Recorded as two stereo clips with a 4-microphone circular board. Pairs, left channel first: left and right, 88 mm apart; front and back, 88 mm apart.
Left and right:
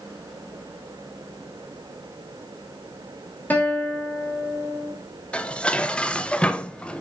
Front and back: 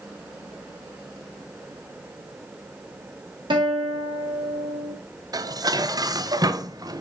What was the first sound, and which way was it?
A guitar, 160° left.